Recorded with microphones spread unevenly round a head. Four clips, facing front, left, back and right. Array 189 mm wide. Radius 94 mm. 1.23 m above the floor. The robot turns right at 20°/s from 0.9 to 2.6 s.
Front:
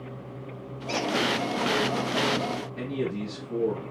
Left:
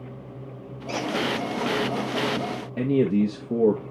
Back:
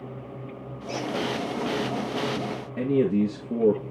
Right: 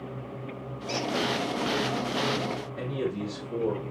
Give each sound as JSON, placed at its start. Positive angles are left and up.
{"t": 0.9, "sound": "a squeak", "azimuth_deg": 20, "distance_m": 4.5}
{"t": 2.8, "sound": "a man speaking", "azimuth_deg": 120, "distance_m": 1.6}